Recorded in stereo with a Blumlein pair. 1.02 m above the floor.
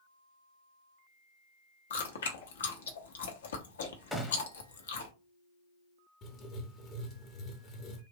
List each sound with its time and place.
1.9 s chewing: 65° left, 0.8 m
4.1 s a gunshot: straight ahead, 0.8 m
6.2 s writing: 30° left, 0.9 m